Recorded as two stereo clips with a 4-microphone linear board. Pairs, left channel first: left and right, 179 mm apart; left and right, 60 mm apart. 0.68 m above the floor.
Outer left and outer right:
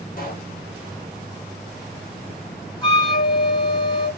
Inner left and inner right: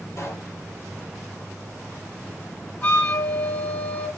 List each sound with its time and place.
0.2 s a pop: 50° left (ahead or behind), 2 m
2.8 s a flute: 30° left (ahead or behind), 4 m